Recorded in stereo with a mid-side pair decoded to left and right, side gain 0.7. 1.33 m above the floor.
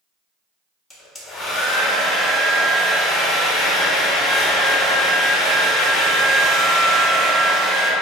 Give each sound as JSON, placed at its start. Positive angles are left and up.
{"t": 0.9, "sound": "a hair dryer", "azimuth_deg": 15, "distance_m": 1.0}